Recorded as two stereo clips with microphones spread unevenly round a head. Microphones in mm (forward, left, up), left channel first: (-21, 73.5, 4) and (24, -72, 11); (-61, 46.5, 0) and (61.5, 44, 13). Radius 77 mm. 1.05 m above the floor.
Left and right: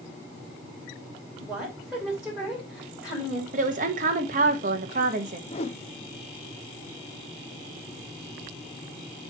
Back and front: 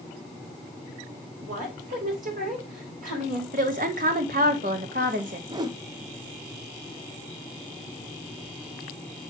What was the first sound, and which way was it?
A woman speaking, 10° left.